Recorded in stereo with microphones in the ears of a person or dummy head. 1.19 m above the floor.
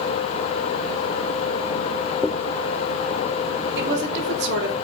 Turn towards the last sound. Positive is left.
turn(degrees=-70)  # may be behind; listen again after turning